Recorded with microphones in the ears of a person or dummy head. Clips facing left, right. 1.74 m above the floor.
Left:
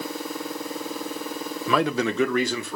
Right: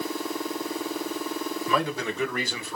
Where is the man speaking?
65° left (ahead or behind), 1.3 m; by 2.8 s 60° left (ahead or behind), 1.7 m.